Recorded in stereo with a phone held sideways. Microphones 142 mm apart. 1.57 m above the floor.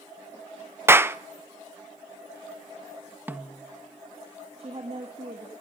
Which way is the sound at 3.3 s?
15° right (ahead or behind).